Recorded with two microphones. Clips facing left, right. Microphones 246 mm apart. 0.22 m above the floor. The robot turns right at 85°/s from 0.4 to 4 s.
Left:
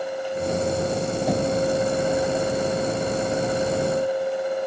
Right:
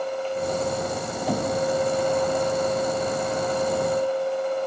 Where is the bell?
I don't hear a bell.